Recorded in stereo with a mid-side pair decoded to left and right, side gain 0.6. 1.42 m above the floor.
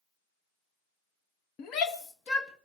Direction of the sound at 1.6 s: 65° left.